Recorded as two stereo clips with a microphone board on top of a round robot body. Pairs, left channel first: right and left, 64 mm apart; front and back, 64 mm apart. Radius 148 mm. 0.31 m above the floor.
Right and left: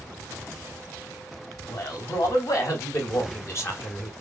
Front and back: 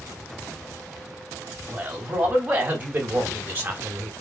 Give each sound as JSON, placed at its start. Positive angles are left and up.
{"t": 1.7, "sound": "a man speaking", "azimuth_deg": -120, "distance_m": 3.5}